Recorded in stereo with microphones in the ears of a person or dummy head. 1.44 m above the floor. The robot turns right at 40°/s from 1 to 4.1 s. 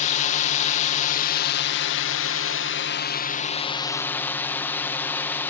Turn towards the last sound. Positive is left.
turn(degrees=170)